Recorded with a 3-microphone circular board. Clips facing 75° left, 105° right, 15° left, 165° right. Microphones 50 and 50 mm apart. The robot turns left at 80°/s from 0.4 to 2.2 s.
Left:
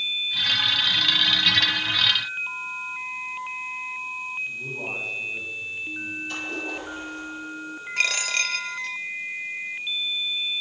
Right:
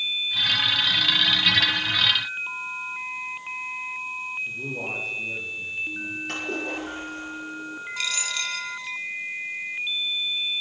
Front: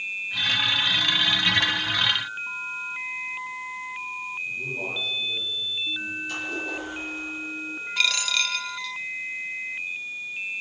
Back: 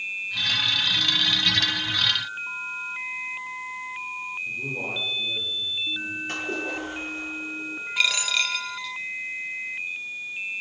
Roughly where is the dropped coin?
Left.